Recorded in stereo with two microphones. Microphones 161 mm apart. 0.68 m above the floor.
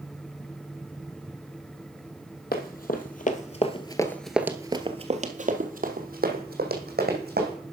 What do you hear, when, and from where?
2.5 s running footsteps: 65° left (ahead or behind), 1.5 m; by 7.6 s 70° right (ahead or behind), 2.5 m